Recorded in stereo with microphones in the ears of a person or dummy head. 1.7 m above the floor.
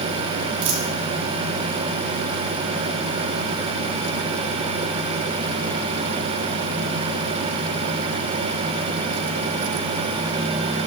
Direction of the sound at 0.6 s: 80° right.